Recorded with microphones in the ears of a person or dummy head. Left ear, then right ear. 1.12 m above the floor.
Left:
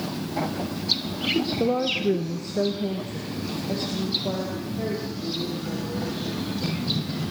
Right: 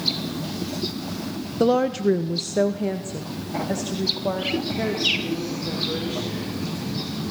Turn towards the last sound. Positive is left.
turn(degrees=-50)  # may be behind; listen again after turning